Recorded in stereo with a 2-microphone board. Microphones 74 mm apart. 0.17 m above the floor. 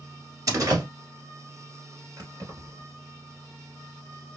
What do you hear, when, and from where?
0.5 s a door slam: 45° right (ahead or behind), 1.4 m
2.2 s keys jangling: 55° right (ahead or behind), 1.6 m